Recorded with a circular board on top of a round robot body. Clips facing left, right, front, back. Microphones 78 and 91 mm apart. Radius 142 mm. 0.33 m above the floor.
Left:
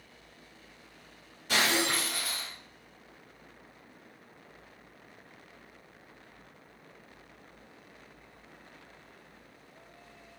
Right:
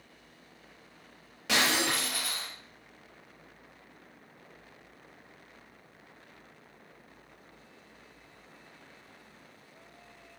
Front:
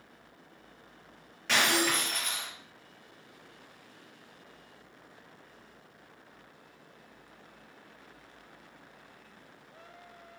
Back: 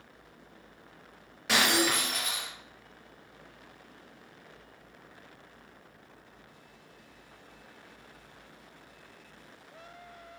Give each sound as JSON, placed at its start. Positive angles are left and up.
{"t": 1.5, "sound": "breaking glass", "azimuth_deg": -100, "distance_m": 6.0}